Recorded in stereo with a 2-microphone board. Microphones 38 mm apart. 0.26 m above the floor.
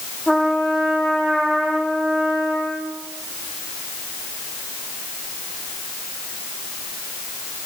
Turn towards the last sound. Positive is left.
turn(degrees=-5)  # may be behind; listen again after turning